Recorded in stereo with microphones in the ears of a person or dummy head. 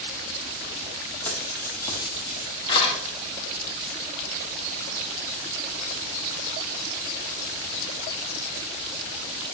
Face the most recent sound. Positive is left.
turn(degrees=35)  # may be behind; listen again after turning